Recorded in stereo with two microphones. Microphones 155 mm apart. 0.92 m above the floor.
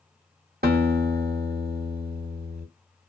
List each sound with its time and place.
0.6 s a guitar: 85° right, 1.6 m